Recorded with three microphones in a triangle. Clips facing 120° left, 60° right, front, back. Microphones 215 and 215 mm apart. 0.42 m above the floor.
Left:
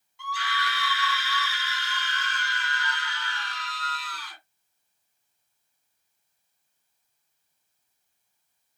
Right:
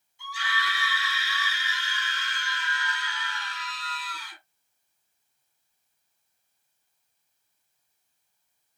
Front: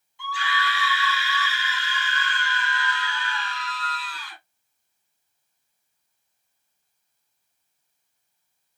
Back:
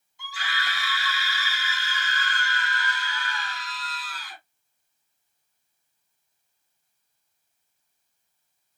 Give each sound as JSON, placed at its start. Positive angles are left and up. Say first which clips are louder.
{"t": 0.2, "sound": "a scream", "louder": "left 3 dB, front 7 dB", "azimuth_deg": 135, "distance_m": 2.5}